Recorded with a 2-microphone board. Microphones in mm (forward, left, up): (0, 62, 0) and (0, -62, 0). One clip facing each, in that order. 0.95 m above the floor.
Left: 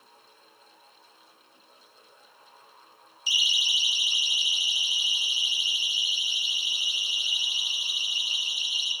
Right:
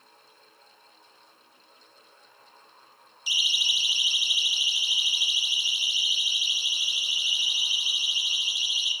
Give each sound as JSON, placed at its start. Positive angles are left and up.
{"t": 3.3, "sound": "a siren", "side_deg": -65, "distance_m": 3.0}